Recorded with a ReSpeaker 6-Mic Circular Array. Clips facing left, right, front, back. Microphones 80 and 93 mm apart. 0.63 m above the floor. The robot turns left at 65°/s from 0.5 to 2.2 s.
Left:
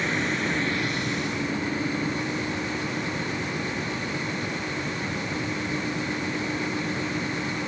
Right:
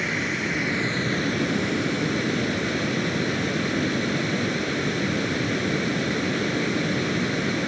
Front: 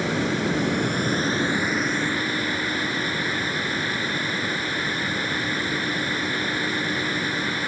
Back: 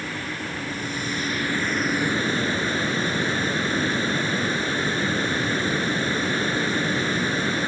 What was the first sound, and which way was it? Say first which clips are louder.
Running water: even, front 8 dB; 5° right.